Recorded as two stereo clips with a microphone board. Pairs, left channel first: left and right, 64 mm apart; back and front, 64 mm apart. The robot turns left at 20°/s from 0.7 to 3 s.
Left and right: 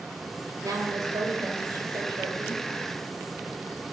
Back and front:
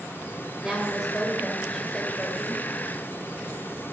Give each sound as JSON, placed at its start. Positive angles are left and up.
{"t": 0.6, "sound": "a woman speaking", "azimuth_deg": -80, "distance_m": 3.5}